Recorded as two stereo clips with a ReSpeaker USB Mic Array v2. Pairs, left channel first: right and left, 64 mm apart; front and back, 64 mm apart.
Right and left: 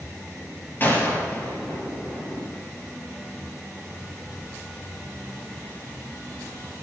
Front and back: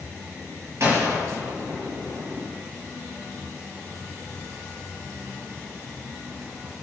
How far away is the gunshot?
About 5.5 m.